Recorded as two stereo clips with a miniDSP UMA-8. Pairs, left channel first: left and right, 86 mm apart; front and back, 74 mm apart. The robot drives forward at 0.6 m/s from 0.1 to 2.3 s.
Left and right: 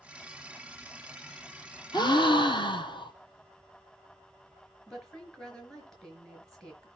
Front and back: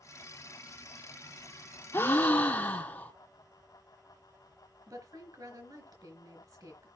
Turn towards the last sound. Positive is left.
turn(degrees=170)